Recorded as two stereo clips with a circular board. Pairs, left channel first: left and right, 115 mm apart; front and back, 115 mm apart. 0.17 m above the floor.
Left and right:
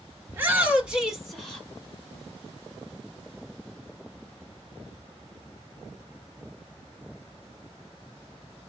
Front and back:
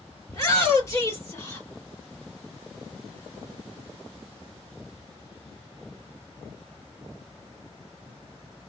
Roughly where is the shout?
Ahead right.